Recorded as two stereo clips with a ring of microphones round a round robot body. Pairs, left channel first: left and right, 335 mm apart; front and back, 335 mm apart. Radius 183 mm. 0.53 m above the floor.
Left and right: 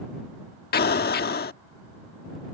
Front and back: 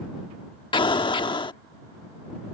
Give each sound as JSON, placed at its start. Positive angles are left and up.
{"t": 0.7, "sound": "an explosion", "azimuth_deg": 65}